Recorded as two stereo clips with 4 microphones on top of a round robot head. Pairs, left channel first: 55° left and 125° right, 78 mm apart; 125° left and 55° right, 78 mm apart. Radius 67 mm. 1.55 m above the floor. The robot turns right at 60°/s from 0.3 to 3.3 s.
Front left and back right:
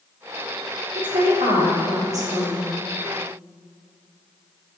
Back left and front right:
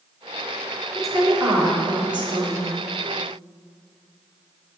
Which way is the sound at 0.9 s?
150° right.